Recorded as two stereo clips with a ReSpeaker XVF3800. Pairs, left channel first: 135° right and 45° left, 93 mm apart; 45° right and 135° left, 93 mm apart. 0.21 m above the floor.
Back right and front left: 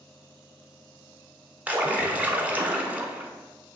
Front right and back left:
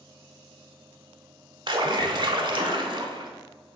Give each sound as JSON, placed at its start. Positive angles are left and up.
{"t": 1.7, "sound": "a splash", "azimuth_deg": 115, "distance_m": 0.7}